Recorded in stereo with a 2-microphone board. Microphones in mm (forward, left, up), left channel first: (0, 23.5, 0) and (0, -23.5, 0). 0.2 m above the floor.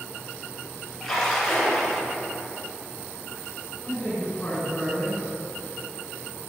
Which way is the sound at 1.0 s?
Centre (ahead or behind).